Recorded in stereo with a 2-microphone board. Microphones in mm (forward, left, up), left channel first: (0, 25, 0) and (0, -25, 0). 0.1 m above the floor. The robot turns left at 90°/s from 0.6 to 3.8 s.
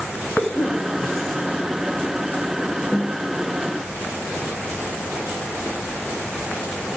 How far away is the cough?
About 5.5 m.